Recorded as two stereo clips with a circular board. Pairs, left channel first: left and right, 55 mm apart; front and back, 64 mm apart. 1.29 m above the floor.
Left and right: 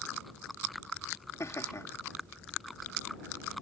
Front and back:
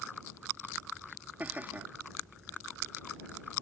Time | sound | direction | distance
1.4 | laughter | 115° left | ?